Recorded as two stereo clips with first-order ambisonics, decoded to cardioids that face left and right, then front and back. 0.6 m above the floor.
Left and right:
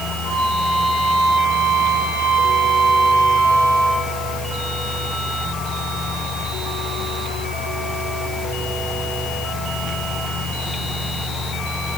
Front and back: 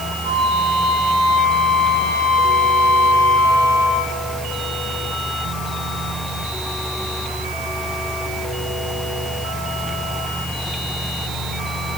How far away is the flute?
About 2.5 m.